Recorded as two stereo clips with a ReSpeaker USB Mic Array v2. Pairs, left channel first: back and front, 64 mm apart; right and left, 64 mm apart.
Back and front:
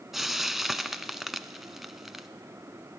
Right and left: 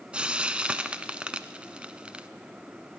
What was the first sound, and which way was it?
Frying, 75° left.